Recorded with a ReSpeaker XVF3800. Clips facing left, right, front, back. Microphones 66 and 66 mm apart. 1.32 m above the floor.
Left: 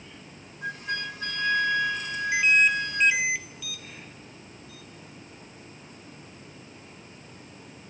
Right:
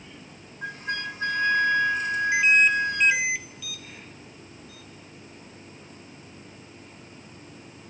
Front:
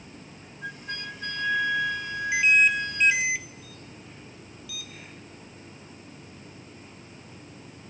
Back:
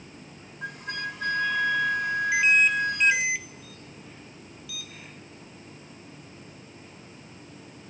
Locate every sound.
0.6 s a flute: 150° right, 1.5 m